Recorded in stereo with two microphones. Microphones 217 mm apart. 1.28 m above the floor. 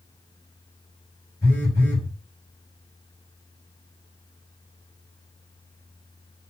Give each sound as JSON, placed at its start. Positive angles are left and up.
{"t": 1.4, "sound": "a phone buzzing", "side_deg": 35, "distance_m": 3.0}